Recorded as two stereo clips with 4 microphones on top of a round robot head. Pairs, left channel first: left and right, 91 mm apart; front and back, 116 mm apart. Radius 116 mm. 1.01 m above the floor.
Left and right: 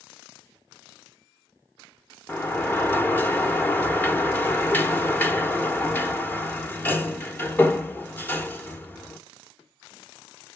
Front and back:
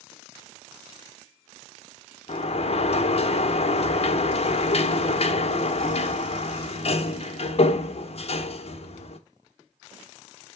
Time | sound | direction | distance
2.3 | a sliding door | 20° left | 1.2 m